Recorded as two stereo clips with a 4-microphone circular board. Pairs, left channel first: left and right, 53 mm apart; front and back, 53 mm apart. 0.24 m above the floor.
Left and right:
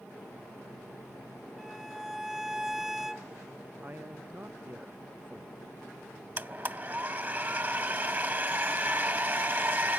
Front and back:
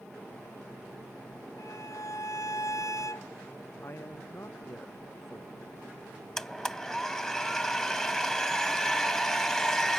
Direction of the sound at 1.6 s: 5° right.